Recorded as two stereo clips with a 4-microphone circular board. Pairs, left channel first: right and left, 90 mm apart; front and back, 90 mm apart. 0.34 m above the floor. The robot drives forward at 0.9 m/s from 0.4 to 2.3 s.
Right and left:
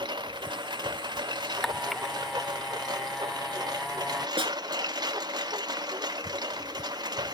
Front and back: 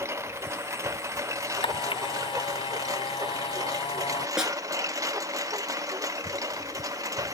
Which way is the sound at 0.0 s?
120° left.